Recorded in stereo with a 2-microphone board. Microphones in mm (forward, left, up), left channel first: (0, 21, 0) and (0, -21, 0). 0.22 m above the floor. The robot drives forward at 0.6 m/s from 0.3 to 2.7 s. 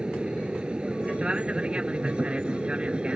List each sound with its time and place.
0.0 s an aircraft: 20° right (ahead or behind); by 3.1 s 25° right (ahead or behind)